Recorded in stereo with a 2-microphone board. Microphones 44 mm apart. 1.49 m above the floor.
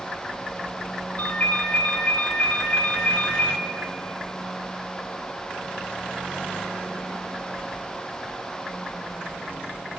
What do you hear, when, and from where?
1.2 s a ringtone: 40° left (ahead or behind), 1.9 m